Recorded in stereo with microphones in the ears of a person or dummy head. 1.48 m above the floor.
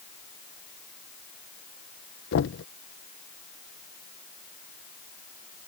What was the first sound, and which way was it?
Knocking, 70° left (ahead or behind).